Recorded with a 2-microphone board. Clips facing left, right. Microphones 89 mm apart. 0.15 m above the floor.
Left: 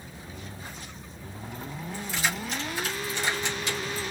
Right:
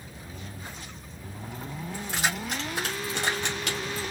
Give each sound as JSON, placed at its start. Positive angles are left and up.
{"t": 1.9, "sound": "keys jangling", "side_deg": -65, "distance_m": 3.5}